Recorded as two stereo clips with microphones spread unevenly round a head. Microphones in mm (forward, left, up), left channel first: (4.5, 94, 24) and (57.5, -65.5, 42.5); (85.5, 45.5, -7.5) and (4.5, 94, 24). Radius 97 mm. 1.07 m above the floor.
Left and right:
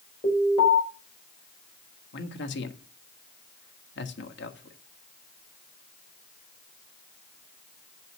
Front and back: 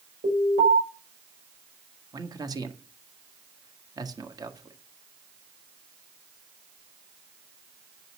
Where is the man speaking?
100° left, 1.7 m.